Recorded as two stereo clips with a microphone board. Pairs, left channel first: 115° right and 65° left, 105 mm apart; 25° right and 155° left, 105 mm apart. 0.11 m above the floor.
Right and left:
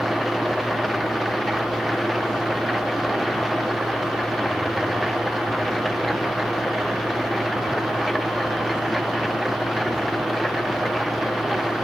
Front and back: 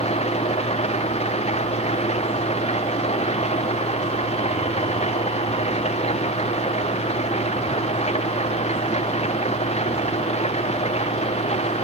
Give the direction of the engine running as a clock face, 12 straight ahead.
1 o'clock.